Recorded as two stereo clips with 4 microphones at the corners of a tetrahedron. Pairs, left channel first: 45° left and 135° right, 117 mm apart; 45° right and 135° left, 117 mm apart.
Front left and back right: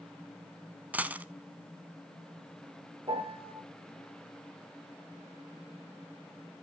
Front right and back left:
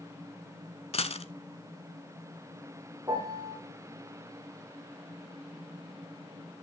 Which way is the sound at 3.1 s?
170° right.